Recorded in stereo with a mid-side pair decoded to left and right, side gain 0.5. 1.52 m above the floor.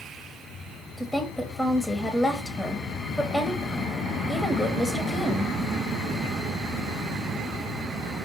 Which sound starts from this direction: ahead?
A woman speaking, at 1.0 s.